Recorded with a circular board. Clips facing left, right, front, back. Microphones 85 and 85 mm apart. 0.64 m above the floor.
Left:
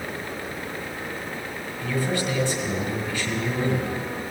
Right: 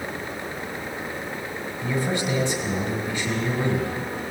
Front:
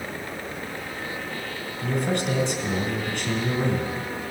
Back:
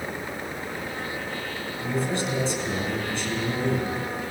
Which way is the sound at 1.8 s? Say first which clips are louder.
Even, front 2 dB; 15° right.